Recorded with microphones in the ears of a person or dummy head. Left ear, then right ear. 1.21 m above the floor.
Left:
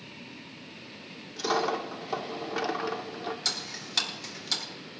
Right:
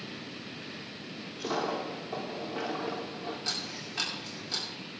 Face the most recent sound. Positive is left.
turn(degrees=70)  # may be behind; listen again after turning